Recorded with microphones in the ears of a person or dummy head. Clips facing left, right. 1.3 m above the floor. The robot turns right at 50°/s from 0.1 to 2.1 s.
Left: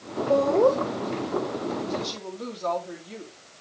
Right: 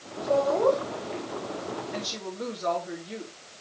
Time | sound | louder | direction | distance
0.3 | laughter | left 3 dB | 65° left (ahead or behind) | 1.8 m
1.9 | a woman speaking | left 3 dB | 5° right (ahead or behind) | 3.5 m